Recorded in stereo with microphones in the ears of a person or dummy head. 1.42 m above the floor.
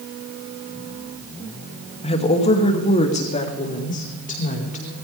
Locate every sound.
2.0 s a woman speaking: 30° left (ahead or behind), 2.5 m; by 5.0 s 40° left (ahead or behind), 5.5 m